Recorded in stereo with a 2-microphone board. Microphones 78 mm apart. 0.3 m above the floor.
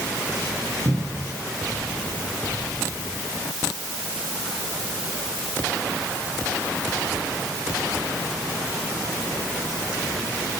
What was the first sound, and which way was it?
A cupboard door, 60° right (ahead or behind).